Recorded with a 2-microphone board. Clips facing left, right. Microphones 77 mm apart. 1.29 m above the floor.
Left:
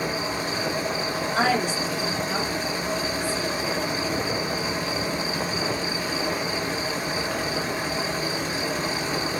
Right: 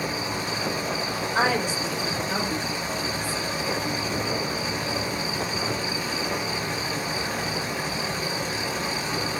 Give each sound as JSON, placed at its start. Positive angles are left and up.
{"t": 0.0, "sound": "an insect", "side_deg": 35, "distance_m": 1.1}
{"t": 1.4, "sound": "a woman speaking", "side_deg": -15, "distance_m": 1.4}